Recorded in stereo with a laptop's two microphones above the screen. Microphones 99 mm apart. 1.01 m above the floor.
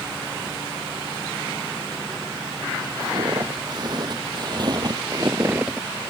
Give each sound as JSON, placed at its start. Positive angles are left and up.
{"t": 3.0, "sound": "footsteps", "side_deg": -45}